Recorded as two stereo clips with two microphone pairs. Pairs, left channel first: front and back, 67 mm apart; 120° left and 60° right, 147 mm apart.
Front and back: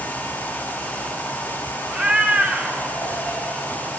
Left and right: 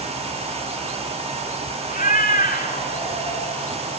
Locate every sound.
1.9 s a cat meowing: 110° left, 2.5 m